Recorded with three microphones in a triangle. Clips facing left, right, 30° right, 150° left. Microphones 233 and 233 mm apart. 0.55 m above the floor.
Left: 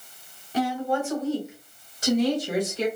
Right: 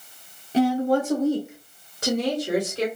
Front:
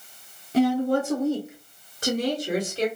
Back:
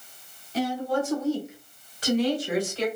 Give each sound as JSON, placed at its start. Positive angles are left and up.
{"t": 0.5, "sound": "a woman speaking", "azimuth_deg": -25, "distance_m": 1.3}